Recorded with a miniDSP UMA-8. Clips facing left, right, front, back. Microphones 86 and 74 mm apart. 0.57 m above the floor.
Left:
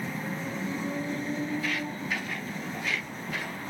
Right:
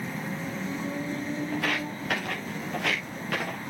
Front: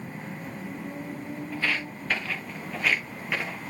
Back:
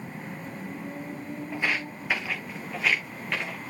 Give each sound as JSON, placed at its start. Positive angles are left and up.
{"t": 1.5, "sound": "footsteps", "azimuth_deg": -110, "distance_m": 2.5}